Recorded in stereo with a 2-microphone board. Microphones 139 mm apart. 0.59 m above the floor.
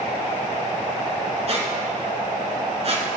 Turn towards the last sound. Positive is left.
turn(degrees=-50)  # may be behind; listen again after turning